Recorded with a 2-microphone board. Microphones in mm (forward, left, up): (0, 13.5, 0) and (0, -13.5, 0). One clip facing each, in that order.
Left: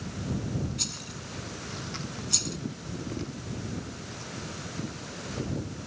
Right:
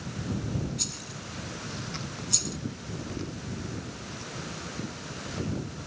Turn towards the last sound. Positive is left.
turn(degrees=5)  # may be behind; listen again after turning